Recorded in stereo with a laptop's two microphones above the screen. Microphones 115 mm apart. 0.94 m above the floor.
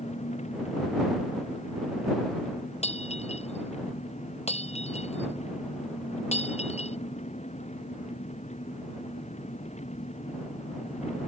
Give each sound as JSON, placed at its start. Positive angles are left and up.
{"t": 0.0, "sound": "an engine running", "side_deg": 75}
{"t": 2.8, "sound": "breaking glass", "side_deg": 70}